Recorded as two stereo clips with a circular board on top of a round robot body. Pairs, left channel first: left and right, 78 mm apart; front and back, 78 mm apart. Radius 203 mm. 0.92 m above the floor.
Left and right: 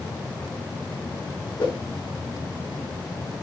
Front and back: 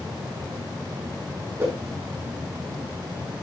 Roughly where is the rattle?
No rattle in this recording.